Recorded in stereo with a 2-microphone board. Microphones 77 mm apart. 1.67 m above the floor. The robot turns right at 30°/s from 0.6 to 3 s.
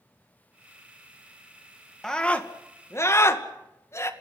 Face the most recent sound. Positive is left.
turn(degrees=35)  # may be behind; listen again after turning